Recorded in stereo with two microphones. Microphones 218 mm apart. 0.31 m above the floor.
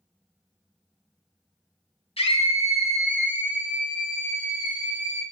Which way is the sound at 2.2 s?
25° left (ahead or behind).